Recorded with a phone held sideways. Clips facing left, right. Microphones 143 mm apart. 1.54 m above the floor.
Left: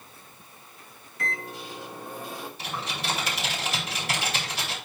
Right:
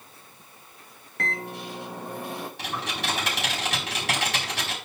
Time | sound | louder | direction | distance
1.2 | a microwave | right 3 dB | 65° right (ahead or behind) | 2 m
2.6 | typing on a keyboard | even | 80° right | 4.5 m